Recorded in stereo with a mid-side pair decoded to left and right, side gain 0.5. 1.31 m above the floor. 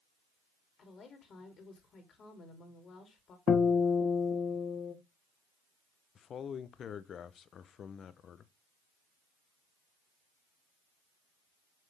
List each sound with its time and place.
0.8 s a woman speaking: 50° left, 3 m
3.5 s a guitar: 55° left, 1.2 m
6.2 s a man speaking: 50° left, 0.8 m